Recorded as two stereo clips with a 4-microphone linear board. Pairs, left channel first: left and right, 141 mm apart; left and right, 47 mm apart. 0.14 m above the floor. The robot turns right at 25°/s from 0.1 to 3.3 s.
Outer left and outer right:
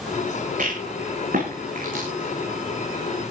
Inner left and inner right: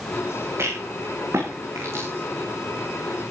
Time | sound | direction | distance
0.6 | a rattle | 70° right (ahead or behind) | 9.5 m